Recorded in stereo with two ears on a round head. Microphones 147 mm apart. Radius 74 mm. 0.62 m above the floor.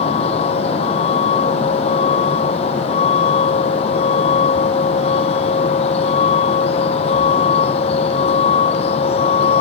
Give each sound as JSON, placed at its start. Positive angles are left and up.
{"t": 0.0, "sound": "a vehicle", "side_deg": 35}